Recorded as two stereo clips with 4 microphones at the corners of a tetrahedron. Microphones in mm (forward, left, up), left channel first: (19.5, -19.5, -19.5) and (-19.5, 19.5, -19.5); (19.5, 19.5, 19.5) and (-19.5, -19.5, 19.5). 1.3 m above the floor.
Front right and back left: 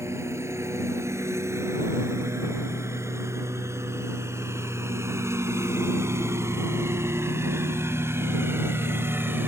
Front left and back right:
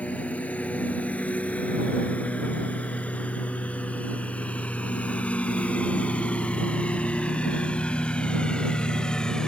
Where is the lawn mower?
105° left; by 9.5 s 115° left.